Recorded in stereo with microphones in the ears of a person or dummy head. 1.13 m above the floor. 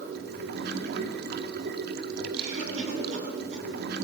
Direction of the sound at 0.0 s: 60° right (ahead or behind).